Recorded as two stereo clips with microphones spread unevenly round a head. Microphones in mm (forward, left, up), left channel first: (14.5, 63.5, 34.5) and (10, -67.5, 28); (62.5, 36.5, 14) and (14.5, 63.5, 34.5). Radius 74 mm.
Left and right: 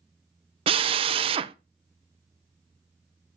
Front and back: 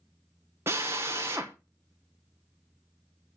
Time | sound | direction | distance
0.7 | a drill | 140° right | 0.9 m